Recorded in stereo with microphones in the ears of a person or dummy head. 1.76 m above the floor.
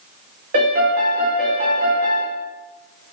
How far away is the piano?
About 0.7 m.